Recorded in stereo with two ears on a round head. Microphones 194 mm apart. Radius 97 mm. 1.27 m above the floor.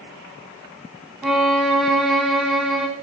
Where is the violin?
Centre (ahead or behind), 3.5 m.